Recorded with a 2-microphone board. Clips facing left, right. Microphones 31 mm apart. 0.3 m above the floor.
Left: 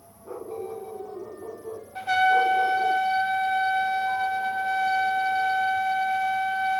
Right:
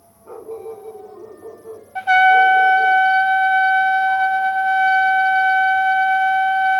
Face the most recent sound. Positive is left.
turn(degrees=-45)  # may be behind; listen again after turning